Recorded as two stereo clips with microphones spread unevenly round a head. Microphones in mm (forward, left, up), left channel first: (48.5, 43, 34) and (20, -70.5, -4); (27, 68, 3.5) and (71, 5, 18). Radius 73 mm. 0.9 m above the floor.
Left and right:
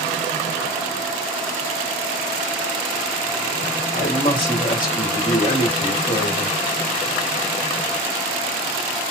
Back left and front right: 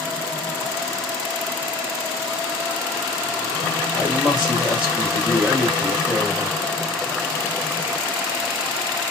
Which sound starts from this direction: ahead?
A man speaking, at 3.9 s.